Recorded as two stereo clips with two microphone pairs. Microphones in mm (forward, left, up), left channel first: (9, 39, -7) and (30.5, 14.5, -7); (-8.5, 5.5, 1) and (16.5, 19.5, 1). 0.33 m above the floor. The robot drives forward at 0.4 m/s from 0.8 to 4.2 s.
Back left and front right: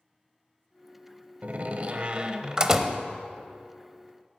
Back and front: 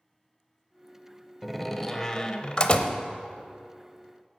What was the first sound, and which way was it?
A door slam, 55° right.